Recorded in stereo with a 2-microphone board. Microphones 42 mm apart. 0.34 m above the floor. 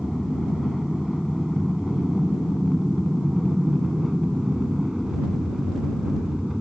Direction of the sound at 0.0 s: Centre (ahead or behind).